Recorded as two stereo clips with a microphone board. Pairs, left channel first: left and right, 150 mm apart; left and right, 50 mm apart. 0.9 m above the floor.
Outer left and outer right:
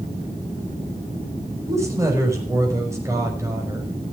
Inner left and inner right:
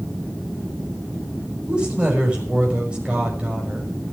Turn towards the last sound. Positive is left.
turn(degrees=-20)  # may be behind; listen again after turning